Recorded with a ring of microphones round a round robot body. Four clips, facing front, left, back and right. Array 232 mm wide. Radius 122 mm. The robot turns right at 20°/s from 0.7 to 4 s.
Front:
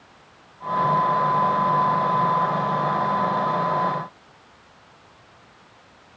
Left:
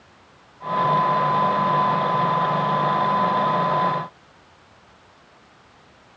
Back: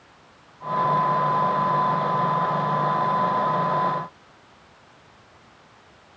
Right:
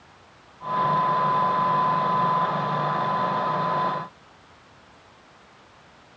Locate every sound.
Only background noise.